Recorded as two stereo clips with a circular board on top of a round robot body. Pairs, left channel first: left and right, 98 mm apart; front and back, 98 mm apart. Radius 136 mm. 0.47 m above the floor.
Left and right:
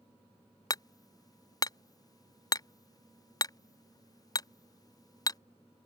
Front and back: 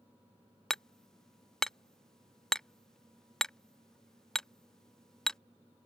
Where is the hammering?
80° left.